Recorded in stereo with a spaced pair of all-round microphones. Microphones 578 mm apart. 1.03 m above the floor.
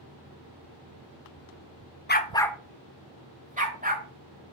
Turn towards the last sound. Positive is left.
turn(degrees=-15)  # may be behind; listen again after turning